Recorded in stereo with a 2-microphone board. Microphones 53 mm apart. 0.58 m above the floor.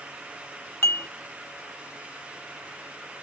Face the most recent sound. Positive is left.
turn(degrees=50)  # may be behind; listen again after turning